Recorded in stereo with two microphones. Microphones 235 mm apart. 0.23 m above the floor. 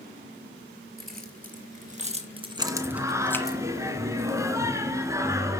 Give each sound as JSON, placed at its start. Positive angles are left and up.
{"t": 1.0, "sound": "keys jangling", "side_deg": -45, "distance_m": 4.0}
{"t": 2.6, "sound": "singing", "side_deg": -15, "distance_m": 1.5}